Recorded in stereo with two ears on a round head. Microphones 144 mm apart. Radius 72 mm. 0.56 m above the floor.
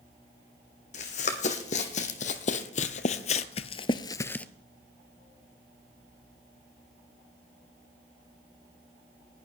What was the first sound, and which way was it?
Running footsteps, 45° left (ahead or behind).